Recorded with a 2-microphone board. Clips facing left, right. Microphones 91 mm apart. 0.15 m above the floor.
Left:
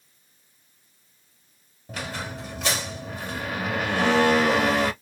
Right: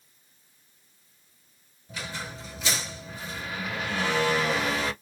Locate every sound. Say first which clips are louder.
1.9 s a squeak: left 4 dB; 65° left (ahead or behind), 0.9 m